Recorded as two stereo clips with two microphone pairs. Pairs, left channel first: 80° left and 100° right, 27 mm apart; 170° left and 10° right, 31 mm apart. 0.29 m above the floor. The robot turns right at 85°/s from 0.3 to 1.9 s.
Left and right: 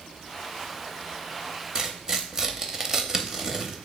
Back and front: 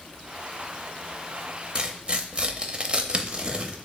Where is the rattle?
I don't hear a rattle.